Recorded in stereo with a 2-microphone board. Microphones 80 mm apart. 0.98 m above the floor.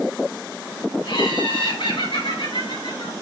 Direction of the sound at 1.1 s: 80° left.